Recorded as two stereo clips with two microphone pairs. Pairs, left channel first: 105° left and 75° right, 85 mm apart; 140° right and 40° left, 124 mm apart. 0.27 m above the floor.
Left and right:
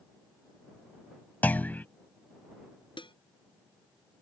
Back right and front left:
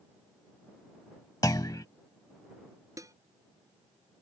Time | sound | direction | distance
1.4 | a clunk | 170° left | ?
3.0 | dishes clattering | 105° left | ?